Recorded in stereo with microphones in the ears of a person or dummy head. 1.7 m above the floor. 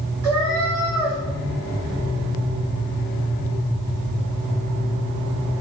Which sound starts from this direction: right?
A cat meowing, at 0.2 s.